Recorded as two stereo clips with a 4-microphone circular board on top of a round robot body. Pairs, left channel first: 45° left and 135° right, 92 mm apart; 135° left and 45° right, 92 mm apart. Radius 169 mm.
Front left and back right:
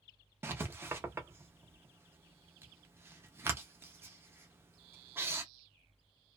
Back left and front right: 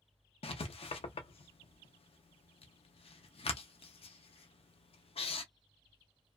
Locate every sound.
0.4 s writing: 160° left, 0.5 m